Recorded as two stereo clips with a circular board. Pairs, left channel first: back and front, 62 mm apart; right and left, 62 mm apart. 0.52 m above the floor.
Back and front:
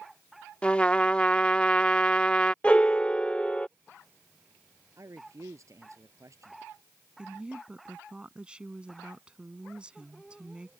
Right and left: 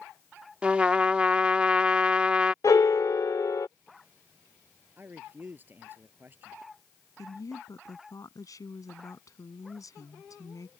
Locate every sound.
0.6 s a trumpet: 130° left
2.6 s a piano: 110° right
5.0 s a man speaking: 35° left
7.2 s a woman speaking: 75° right